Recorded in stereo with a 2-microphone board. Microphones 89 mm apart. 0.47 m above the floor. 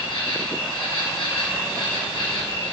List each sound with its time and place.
0.0 s an insect: 75° left (ahead or behind), 5.5 m